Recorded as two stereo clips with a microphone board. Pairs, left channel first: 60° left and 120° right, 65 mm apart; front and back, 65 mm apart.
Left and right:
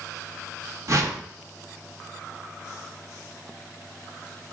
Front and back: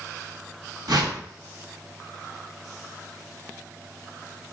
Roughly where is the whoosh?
Behind.